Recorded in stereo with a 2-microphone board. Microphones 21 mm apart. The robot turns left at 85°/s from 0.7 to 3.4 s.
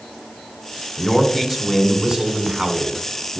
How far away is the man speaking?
About 1.2 m.